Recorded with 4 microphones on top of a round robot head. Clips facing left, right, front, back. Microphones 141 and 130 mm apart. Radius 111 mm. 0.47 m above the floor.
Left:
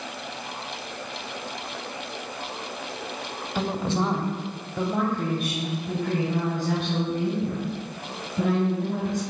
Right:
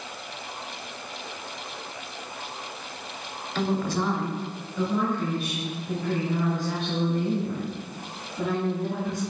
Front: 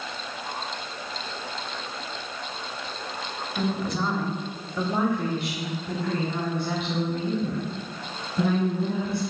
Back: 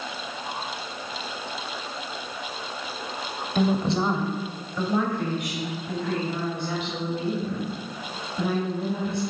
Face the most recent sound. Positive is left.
turn(degrees=40)